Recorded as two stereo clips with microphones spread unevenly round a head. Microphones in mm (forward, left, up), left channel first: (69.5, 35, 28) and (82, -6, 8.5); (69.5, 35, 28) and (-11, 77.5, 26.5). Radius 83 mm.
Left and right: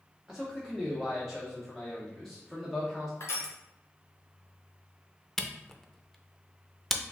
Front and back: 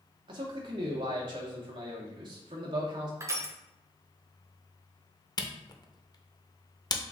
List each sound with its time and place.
0.3 s a man speaking: 160° right, 0.5 m
3.2 s crushing: 135° left, 0.8 m
5.4 s a camera shutter: 20° left, 0.6 m